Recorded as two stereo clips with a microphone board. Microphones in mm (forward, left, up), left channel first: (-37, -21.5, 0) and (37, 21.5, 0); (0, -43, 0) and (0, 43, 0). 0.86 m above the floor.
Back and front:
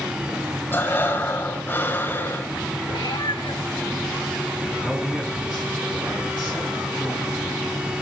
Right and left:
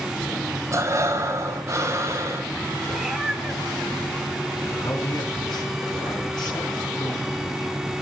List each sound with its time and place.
0.7 s breathing: 145° left, 3.5 m
2.9 s a cat meowing: 175° left, 3 m
4.8 s a man speaking: 50° right, 6.5 m